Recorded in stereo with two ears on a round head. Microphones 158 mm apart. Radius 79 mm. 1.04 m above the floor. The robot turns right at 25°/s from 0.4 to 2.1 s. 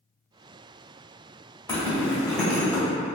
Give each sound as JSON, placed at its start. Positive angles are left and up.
{"t": 1.7, "sound": "a zipper", "side_deg": 15, "distance_m": 1.2}